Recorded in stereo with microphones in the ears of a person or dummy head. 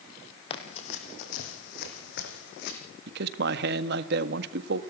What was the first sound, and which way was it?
Running footsteps, 40° left (ahead or behind).